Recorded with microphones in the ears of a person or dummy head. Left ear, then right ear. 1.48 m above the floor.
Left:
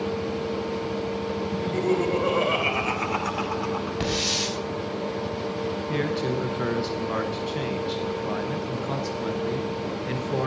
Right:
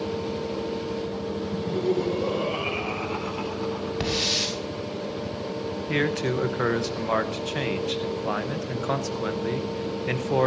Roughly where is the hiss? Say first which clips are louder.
Right 2 dB; centre.